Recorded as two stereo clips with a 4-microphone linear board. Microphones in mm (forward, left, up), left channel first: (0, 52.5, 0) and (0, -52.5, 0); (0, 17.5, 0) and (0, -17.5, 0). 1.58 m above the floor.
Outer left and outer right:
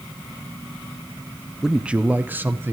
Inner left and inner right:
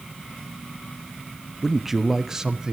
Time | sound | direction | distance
1.6 | a man speaking | centre (ahead or behind) | 0.6 m